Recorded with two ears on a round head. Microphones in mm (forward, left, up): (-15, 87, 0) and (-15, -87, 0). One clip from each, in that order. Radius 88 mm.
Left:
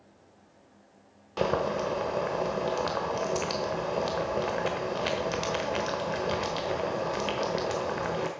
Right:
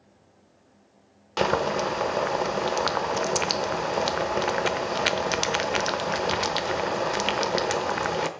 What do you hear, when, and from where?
1.4 s boiling: 35° right (ahead or behind), 0.8 m